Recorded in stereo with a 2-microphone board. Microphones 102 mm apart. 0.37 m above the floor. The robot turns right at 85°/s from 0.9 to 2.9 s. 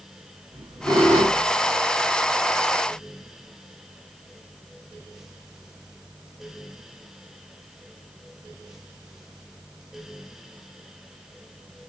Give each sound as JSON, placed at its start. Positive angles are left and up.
{"t": 0.5, "sound": "a squeak", "azimuth_deg": -130, "distance_m": 1.9}